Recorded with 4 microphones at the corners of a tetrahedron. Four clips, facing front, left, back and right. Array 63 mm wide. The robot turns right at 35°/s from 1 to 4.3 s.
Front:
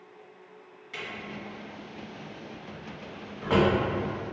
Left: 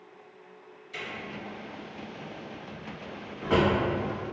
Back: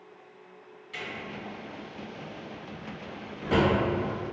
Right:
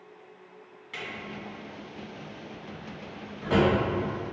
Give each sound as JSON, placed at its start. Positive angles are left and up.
{"t": 0.9, "sound": "a drawer", "azimuth_deg": -75, "distance_m": 1.3}